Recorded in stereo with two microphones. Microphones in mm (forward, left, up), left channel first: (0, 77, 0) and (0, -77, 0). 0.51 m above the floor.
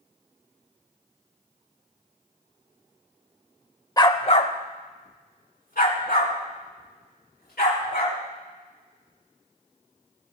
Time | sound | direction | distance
4.0 | a dog barking | 25° left (ahead or behind) | 0.8 m